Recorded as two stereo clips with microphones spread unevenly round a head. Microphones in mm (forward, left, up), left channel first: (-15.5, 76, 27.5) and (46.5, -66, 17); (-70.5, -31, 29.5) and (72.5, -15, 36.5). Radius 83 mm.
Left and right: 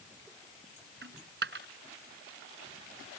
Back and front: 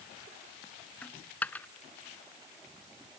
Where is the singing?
No singing in this recording.